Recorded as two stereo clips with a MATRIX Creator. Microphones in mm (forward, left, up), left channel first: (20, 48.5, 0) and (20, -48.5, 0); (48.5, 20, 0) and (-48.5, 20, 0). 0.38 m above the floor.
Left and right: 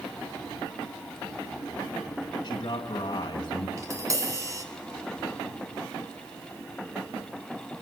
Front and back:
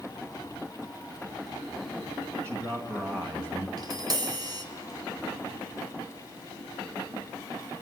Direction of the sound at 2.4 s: 125° left.